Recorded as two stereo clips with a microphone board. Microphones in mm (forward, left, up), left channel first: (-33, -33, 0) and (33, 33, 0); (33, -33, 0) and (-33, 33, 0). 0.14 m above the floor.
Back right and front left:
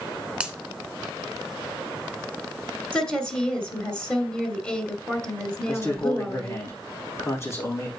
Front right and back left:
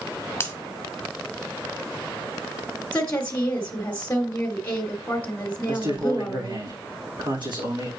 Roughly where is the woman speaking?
Right.